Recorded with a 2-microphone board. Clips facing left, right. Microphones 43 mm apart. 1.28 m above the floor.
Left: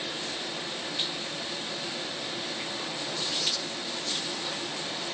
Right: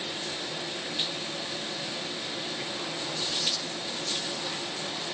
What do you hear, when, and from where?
Only background noise.